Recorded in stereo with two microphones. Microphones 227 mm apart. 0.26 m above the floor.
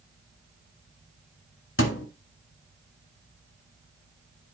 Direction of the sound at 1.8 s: 60° left (ahead or behind).